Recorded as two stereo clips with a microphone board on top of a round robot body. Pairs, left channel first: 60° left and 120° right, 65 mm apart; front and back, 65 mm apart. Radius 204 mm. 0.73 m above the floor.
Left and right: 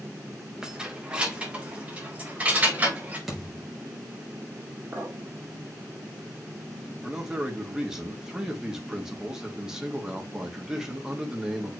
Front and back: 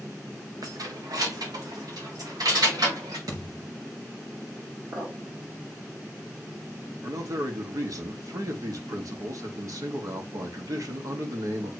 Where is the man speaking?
160° left, 1.8 m.